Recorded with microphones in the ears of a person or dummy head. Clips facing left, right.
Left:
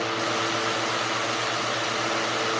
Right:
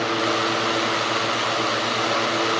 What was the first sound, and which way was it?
Only background noise.